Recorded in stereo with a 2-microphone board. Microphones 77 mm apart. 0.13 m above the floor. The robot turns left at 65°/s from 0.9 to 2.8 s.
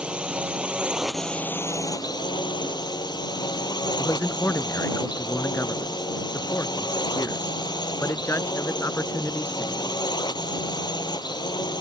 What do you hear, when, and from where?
0.0 s a drone: 165° right; by 11.8 s 70° left
4.0 s a man speaking: 35° left (ahead or behind)